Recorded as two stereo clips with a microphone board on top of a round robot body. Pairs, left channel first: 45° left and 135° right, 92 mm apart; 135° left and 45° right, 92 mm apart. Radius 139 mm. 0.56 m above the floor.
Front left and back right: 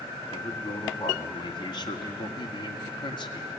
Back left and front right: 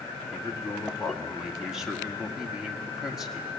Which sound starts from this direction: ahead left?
A man speaking, at 0.3 s.